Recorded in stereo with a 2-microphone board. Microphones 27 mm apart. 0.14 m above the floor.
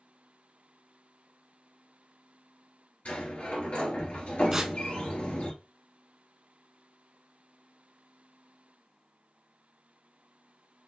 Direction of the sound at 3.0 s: 55° left (ahead or behind).